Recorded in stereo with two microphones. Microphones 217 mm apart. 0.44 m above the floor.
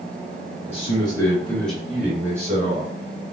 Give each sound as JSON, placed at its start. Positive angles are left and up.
{"t": 0.7, "sound": "a man speaking", "side_deg": 30, "distance_m": 1.5}